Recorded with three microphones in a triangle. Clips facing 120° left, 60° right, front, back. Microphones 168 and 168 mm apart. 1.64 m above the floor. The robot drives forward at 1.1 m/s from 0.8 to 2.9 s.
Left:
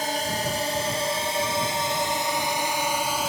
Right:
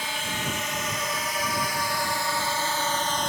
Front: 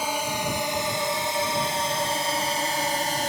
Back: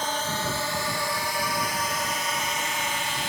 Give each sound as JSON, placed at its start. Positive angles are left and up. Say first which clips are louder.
{"t": 0.0, "sound": "a drone", "louder": "left 5 dB, front 2 dB", "azimuth_deg": 80}